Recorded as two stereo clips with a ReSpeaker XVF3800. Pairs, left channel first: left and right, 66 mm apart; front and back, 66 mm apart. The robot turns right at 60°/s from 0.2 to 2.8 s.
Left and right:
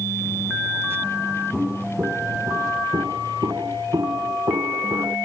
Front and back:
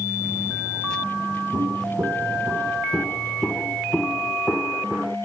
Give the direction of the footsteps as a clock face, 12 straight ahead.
6 o'clock.